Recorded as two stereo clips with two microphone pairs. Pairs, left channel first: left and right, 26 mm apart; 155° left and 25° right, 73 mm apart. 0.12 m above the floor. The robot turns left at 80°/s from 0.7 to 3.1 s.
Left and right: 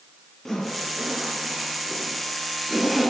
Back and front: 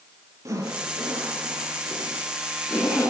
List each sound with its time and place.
0.5 s a zipper: 15° left, 3 m; by 3.1 s 175° right, 3 m